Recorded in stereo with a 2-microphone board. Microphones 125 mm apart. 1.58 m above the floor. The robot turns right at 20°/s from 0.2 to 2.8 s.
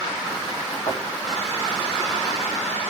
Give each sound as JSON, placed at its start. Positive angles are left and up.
{"t": 0.9, "sound": "a thud", "side_deg": 55, "distance_m": 3.0}